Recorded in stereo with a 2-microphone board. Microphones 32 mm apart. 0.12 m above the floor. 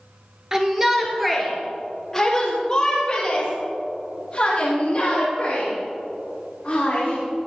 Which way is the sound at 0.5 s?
20° right (ahead or behind).